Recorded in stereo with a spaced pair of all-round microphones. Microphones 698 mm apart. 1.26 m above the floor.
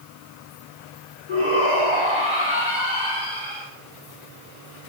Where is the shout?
85° left, 4 m.